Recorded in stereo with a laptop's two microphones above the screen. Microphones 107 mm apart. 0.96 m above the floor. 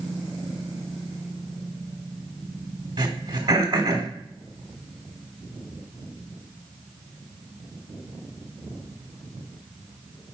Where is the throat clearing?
45° right (ahead or behind), 1.2 m.